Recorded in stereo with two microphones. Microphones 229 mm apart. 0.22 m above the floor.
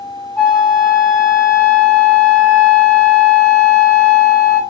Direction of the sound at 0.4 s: 5° left (ahead or behind).